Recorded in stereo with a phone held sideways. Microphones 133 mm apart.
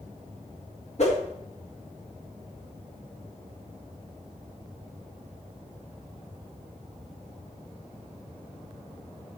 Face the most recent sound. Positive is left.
turn(degrees=55)  # may be behind; listen again after turning